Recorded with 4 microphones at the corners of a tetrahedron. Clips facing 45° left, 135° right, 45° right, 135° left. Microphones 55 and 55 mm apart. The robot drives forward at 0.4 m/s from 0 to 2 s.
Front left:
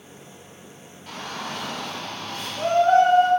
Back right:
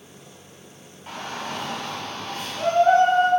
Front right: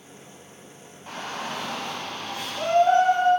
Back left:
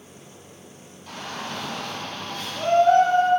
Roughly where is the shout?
Right.